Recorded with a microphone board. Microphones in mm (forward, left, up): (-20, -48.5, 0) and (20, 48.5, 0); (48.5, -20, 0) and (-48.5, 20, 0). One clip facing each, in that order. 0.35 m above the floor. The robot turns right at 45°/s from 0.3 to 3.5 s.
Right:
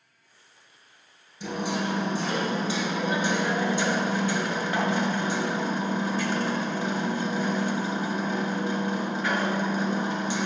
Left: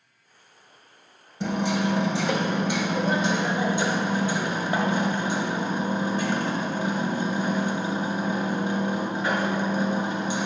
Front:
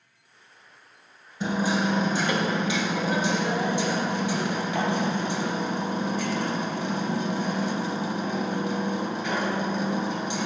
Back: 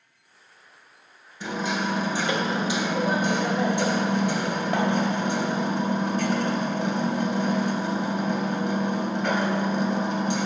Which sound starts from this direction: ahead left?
Hammering, at 1.4 s.